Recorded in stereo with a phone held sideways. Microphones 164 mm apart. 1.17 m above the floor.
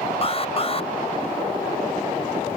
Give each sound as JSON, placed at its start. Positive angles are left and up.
{"t": 0.2, "sound": "an alarm", "side_deg": 40}